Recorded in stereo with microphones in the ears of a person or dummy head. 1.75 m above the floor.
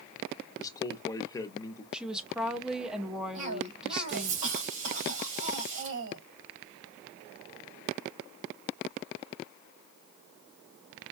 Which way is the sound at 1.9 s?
5° right (ahead or behind).